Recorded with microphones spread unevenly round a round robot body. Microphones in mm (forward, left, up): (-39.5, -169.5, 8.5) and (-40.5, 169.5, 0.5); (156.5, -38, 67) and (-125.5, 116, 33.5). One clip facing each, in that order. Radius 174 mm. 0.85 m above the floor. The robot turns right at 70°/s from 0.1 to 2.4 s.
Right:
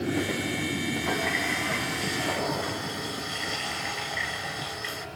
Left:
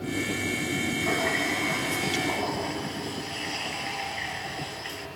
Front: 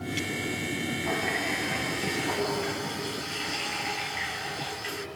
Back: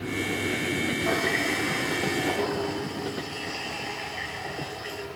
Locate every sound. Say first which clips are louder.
1.0 s a running tap: left 2 dB, back 4 dB; 175° left, 7 m; by 5.1 s 85° right, 7 m